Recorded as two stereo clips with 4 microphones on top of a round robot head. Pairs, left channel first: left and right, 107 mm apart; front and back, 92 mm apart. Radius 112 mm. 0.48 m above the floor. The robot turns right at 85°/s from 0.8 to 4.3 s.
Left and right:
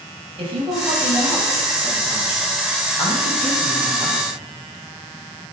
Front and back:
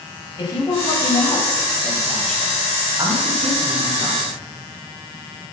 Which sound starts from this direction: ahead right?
A woman speaking, at 0.4 s.